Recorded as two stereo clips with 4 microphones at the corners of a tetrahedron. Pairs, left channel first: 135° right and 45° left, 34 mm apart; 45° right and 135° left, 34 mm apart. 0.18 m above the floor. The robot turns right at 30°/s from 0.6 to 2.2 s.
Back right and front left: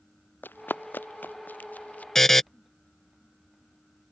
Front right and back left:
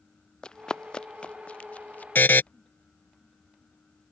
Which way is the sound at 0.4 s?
115° right.